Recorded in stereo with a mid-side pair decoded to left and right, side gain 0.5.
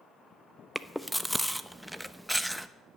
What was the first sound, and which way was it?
Chewing, straight ahead.